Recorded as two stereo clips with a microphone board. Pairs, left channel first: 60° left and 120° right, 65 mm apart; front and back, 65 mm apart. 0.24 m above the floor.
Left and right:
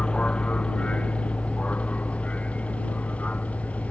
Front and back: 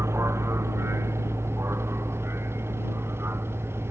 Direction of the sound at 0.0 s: 135° left.